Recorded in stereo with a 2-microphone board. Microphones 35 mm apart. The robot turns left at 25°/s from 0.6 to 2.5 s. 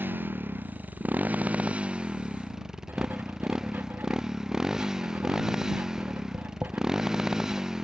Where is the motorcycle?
120° right; by 7.8 s 165° right.